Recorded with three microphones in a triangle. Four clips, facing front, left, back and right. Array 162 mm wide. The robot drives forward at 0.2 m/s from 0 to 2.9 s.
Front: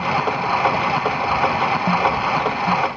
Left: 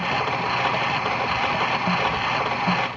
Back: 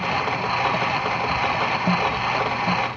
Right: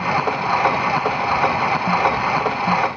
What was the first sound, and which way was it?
Only background noise.